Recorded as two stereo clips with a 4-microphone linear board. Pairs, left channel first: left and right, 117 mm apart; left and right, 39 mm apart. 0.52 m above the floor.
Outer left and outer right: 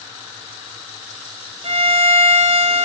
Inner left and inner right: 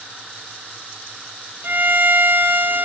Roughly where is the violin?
Right.